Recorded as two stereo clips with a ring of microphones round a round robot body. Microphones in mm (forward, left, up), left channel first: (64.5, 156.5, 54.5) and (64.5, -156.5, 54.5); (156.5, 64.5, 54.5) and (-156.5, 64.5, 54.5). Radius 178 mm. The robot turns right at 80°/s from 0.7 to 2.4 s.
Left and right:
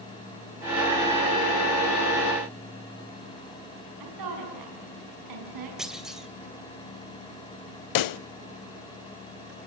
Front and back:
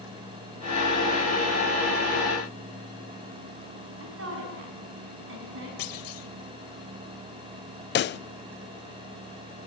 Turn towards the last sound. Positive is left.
turn(degrees=60)